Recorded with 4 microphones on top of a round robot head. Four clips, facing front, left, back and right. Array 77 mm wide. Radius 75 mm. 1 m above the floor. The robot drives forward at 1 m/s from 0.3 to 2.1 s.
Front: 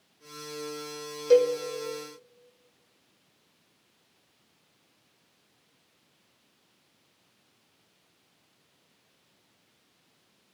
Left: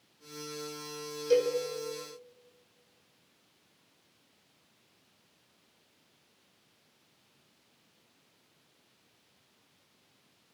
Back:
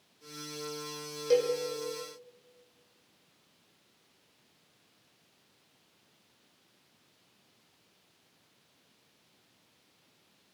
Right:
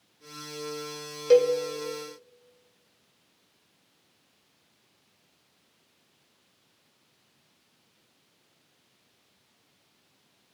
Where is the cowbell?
80° right, 1.6 m; by 1.6 s 90° right, 1.6 m.